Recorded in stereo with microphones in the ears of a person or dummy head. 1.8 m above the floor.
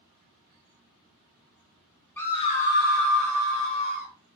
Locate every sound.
2.2 s a scream: 10° left (ahead or behind), 0.7 m; by 4.1 s 55° left (ahead or behind), 1.9 m